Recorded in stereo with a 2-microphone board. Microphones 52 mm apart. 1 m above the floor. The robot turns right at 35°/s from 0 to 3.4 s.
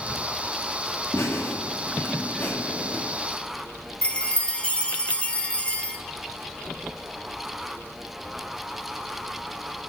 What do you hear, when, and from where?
1.1 s laughter: 95° left, 2.0 m; by 3.0 s 160° left, 2.0 m
4.0 s a chime: 20° left (ahead or behind), 1.1 m